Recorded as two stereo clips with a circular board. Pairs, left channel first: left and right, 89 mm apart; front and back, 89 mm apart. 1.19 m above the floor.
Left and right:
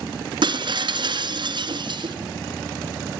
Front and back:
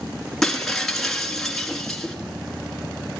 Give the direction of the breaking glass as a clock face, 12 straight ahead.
3 o'clock.